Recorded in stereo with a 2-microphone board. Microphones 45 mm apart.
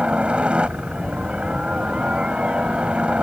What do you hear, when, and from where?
0.0 s a helicopter: 25° right (ahead or behind)